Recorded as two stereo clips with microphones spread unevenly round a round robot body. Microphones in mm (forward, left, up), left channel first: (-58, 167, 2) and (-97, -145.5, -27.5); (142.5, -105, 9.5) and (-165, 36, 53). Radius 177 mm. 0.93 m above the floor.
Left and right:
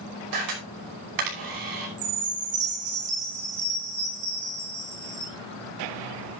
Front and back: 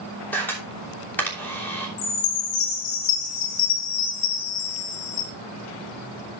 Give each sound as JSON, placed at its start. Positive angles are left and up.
{"t": 0.3, "sound": "a camera shutter", "azimuth_deg": -110, "distance_m": 5.5}
{"t": 2.0, "sound": "a chime", "azimuth_deg": -35, "distance_m": 3.5}